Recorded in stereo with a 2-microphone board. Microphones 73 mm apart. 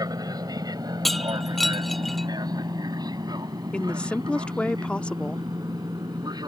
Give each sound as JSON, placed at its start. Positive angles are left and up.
{"t": 0.0, "sound": "an aircraft", "side_deg": -60}
{"t": 1.1, "sound": "breaking glass", "side_deg": 5}
{"t": 3.7, "sound": "a woman speaking", "side_deg": 15}